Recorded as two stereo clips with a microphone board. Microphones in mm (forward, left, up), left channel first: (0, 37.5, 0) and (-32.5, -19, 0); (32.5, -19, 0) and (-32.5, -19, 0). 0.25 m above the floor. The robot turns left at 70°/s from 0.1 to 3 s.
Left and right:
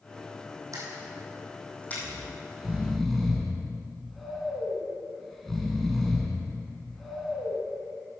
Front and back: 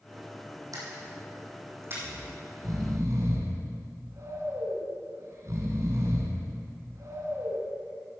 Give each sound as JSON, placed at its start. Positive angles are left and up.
{"t": 0.7, "sound": "a camera shutter", "azimuth_deg": -150, "distance_m": 3.5}
{"t": 2.0, "sound": "snoring", "azimuth_deg": -145, "distance_m": 1.9}